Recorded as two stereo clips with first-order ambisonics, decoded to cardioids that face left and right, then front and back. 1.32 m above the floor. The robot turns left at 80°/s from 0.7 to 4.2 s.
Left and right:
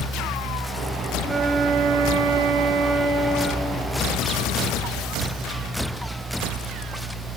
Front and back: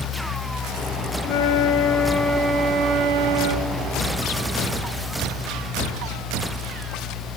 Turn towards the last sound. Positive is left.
turn(degrees=115)